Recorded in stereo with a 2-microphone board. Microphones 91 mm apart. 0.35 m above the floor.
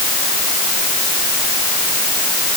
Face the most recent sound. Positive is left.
No sound to turn to.